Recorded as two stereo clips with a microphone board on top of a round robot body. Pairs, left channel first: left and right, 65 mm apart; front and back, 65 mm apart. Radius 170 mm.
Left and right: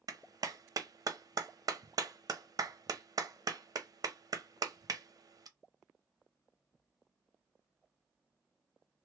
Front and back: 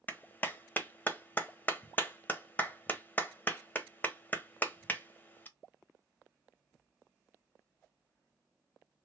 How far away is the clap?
About 0.9 m.